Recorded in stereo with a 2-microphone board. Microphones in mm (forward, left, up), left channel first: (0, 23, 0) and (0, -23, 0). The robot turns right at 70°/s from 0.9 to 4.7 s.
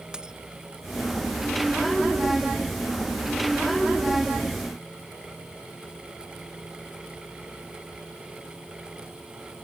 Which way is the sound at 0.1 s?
20° right (ahead or behind).